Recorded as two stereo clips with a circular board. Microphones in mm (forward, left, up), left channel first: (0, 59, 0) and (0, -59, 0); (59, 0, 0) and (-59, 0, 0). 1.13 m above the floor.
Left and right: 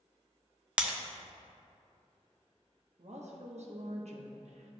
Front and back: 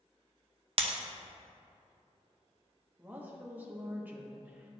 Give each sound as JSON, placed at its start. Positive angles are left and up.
{"t": 0.8, "sound": "breaking glass", "azimuth_deg": -170, "distance_m": 0.6}
{"t": 3.0, "sound": "a woman speaking", "azimuth_deg": -105, "distance_m": 1.0}